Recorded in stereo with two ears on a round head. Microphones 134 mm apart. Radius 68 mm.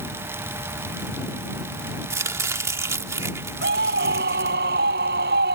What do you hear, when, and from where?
2.1 s chopping: 20° right (ahead or behind)
3.6 s a scream: 80° right